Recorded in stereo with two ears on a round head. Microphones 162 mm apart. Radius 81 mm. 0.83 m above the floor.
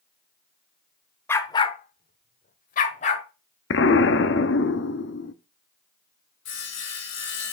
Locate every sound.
1.3 s a dog barking: 10° left (ahead or behind), 0.9 m; by 3.2 s 40° left (ahead or behind), 1.6 m
3.7 s an explosion: 70° left (ahead or behind), 0.7 m
6.5 s sawing: 75° left (ahead or behind), 2.5 m